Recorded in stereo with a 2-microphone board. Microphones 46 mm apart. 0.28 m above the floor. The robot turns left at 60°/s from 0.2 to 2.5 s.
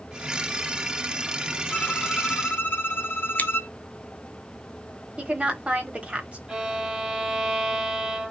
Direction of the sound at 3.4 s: 40° left (ahead or behind).